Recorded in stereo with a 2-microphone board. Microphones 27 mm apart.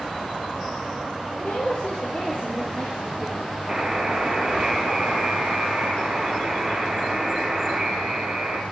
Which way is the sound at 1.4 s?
40° left (ahead or behind).